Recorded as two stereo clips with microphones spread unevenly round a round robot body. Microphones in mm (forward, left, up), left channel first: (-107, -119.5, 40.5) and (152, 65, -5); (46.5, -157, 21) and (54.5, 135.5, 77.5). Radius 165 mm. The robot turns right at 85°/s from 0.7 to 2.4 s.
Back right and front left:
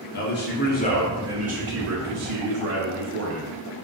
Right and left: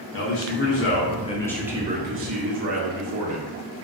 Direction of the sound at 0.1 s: 85° right.